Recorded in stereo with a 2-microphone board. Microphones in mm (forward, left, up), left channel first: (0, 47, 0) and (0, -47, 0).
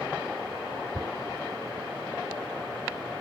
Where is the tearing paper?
35° right (ahead or behind).